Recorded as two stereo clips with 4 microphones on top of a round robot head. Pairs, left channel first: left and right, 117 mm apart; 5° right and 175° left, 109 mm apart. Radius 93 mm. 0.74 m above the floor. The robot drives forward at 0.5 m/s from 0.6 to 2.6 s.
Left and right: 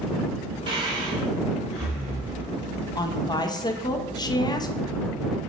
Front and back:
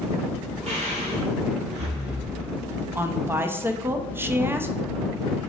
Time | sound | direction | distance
0.7 | breathing | 140° right | 1.2 m
3.0 | a woman speaking | 115° left | 0.5 m